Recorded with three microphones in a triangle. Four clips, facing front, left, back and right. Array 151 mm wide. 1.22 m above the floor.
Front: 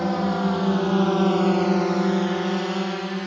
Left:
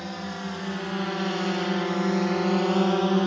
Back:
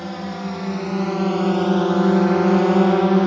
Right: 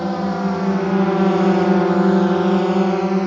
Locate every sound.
0.0 s a drone: 60° right; by 3.3 s 170° right